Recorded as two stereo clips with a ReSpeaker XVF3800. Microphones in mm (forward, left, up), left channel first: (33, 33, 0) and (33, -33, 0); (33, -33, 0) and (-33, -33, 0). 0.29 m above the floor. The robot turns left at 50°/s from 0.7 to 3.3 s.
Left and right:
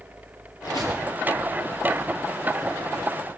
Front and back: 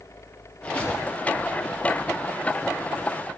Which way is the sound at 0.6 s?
75° left.